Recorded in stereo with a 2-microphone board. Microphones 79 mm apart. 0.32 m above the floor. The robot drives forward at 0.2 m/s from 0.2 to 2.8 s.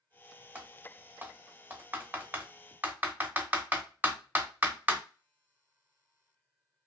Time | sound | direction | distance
0.6 | typing on a keyboard | 20° right (ahead or behind) | 0.6 m